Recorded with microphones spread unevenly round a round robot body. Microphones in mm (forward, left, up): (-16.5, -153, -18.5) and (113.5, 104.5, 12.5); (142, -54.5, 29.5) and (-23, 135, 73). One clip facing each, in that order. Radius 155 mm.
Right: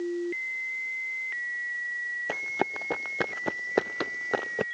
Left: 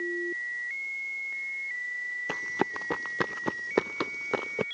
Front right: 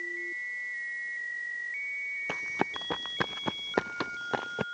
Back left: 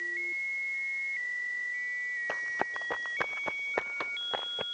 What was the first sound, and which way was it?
Running footsteps, 5° right.